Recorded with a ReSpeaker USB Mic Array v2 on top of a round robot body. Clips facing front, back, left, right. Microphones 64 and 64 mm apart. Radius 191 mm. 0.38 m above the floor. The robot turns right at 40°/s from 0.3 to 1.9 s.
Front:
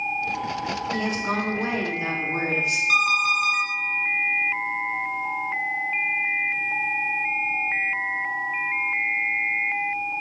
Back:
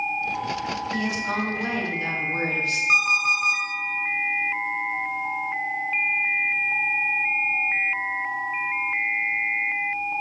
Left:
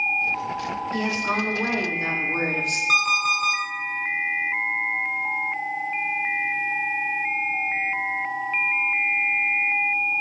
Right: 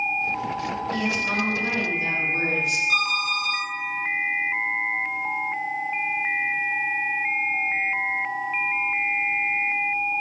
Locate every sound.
0.9 s a woman speaking: 30° left, 2.5 m; by 2.8 s 70° left, 2.5 m
2.9 s an alarm clock: 115° left, 3.5 m